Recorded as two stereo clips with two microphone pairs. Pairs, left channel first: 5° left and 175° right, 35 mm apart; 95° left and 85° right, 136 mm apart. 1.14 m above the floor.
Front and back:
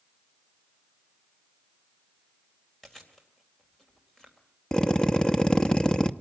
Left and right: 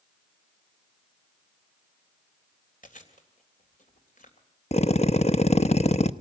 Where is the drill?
70° left, 0.8 m.